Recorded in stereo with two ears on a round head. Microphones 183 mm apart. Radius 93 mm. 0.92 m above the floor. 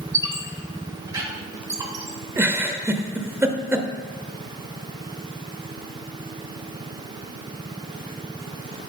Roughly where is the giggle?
Centre.